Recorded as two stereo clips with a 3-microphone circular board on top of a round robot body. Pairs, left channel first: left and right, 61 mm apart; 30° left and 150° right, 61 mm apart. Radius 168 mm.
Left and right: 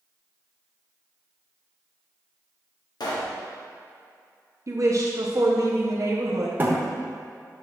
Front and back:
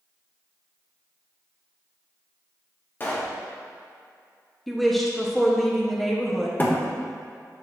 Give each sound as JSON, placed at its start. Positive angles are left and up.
{"t": 3.0, "sound": "a pop", "azimuth_deg": 90, "distance_m": 1.2}
{"t": 4.7, "sound": "a woman speaking", "azimuth_deg": -60, "distance_m": 1.0}
{"t": 6.6, "sound": "a thud", "azimuth_deg": -30, "distance_m": 1.1}